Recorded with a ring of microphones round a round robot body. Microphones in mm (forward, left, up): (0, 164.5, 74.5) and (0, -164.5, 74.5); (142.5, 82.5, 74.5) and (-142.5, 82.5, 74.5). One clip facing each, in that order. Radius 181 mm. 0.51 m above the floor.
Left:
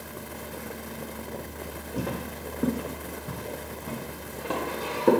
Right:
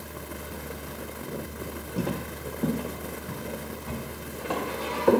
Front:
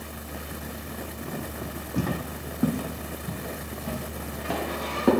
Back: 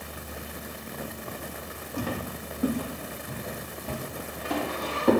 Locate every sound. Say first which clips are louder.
2.0 s footsteps: right 1 dB, front 3 dB; 5° right, 1.0 m; by 5.1 s 25° left, 4 m